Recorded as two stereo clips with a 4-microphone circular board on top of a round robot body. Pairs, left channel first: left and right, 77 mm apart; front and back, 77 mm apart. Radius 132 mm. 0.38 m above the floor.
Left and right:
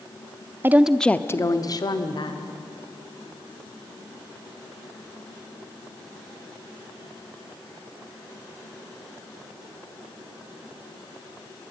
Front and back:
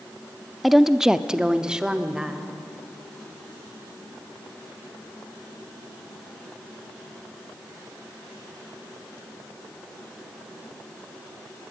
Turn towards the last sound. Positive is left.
turn(degrees=100)